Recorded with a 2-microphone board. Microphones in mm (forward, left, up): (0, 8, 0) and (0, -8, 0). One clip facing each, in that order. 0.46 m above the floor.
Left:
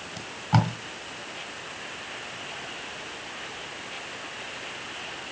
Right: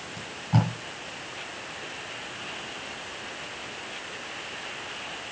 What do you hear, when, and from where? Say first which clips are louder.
0.2 s tape being pulled: left 2 dB; 45° left (ahead or behind), 2.5 m